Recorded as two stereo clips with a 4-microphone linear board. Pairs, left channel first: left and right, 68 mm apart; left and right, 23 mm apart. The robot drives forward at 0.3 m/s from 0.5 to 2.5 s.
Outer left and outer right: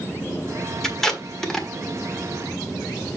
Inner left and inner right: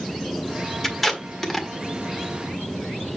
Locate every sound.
0.8 s tape being pulled: 5° left (ahead or behind), 1.5 m; by 1.7 s 10° left (ahead or behind), 1.2 m